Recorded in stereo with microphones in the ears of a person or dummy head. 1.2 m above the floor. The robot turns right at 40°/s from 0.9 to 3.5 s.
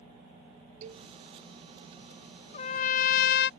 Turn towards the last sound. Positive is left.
turn(degrees=95)